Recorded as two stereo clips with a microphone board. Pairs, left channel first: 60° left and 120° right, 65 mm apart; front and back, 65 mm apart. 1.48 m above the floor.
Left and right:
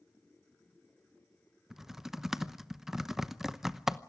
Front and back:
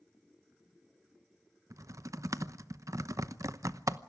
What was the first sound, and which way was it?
Typing on a keyboard, 155° left.